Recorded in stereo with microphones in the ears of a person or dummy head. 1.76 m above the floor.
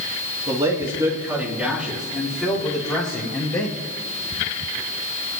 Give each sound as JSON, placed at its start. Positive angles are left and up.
{"t": 0.5, "sound": "a man speaking", "side_deg": -30, "distance_m": 1.9}